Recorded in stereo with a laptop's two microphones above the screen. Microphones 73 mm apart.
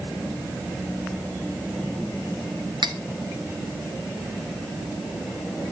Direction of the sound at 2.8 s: 85° right.